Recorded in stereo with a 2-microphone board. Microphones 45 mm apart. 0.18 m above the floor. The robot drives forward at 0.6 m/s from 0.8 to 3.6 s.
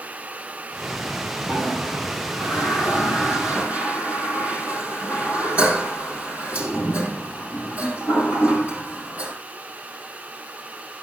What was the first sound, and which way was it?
A toilet flushing, 50° right (ahead or behind).